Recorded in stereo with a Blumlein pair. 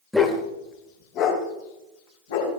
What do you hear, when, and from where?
0.1 s a dog barking: 5° left, 1.9 m; by 2.5 s 55° left, 4.5 m